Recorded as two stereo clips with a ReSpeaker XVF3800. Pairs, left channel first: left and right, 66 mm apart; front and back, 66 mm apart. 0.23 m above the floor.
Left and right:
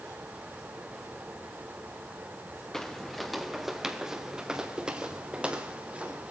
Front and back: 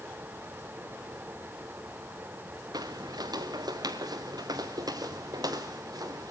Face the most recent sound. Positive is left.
turn(degrees=-160)